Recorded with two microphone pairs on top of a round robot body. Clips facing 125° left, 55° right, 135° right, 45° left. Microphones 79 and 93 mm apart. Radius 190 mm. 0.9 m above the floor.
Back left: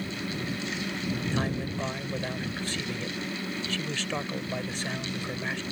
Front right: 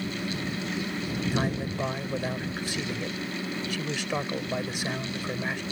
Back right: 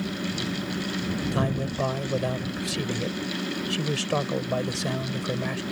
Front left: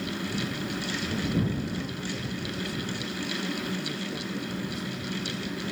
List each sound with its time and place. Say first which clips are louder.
1.3 s a man speaking: front right 1 dB, back right 3 dB; 135° right